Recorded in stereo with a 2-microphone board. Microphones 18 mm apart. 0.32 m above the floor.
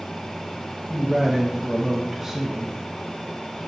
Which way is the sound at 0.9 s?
15° right (ahead or behind).